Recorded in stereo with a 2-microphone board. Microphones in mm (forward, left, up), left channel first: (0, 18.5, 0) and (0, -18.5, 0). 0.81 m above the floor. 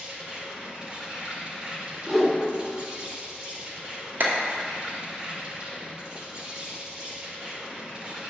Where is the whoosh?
5° right (ahead or behind), 1.5 m.